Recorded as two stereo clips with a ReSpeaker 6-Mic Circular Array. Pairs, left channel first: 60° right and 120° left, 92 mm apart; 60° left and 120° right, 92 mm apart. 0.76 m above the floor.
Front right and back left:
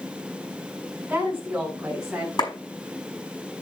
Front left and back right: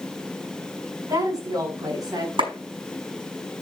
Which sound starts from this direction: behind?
A woman speaking, at 1.1 s.